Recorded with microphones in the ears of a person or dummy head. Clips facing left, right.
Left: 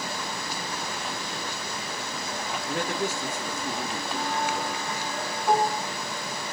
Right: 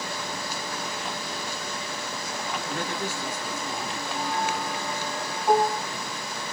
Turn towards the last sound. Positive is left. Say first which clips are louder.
# right 2 dB
turn(degrees=-15)  # may be behind; listen again after turning